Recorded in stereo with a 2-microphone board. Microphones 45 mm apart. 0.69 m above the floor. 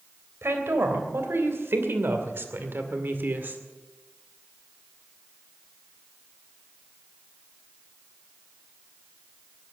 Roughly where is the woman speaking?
Right.